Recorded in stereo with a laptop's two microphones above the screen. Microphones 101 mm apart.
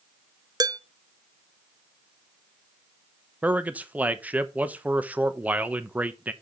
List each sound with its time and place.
0.6 s dishes clattering: 40° right (ahead or behind), 0.8 m
3.4 s a man speaking: 15° right (ahead or behind), 1.0 m